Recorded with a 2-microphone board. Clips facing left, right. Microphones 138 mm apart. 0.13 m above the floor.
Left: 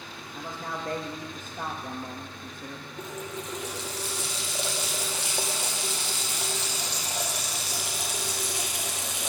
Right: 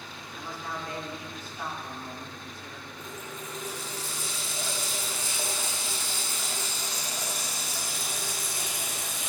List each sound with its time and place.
0.3 s a man speaking: 45° left (ahead or behind), 3 m
3.0 s a running tap: 70° left (ahead or behind), 3 m